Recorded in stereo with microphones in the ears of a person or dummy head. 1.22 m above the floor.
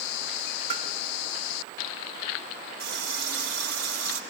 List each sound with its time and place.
0.7 s tapping: 50° right (ahead or behind), 4 m
2.8 s a running tap: 65° right (ahead or behind), 3.5 m